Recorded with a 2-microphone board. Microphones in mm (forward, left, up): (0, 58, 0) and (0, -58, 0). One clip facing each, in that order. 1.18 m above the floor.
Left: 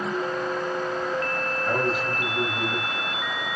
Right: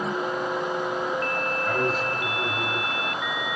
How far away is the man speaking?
About 5.5 m.